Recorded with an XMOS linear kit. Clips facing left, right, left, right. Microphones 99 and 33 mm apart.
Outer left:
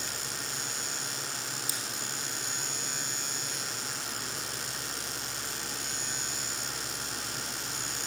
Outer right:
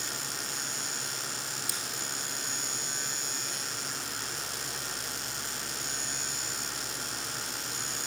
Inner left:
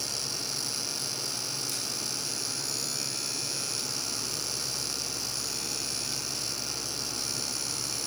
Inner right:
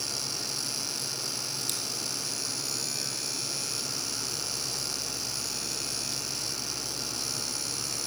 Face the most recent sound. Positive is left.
turn(degrees=-65)  # may be behind; listen again after turning